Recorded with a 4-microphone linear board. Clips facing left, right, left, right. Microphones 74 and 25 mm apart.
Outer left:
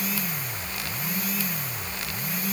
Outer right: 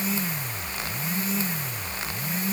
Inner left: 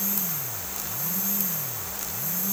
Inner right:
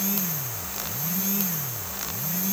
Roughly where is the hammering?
No hammering in this recording.